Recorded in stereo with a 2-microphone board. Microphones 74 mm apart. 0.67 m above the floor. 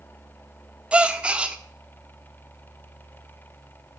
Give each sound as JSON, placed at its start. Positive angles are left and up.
{"t": 0.9, "sound": "a gasp", "side_deg": -15, "distance_m": 0.6}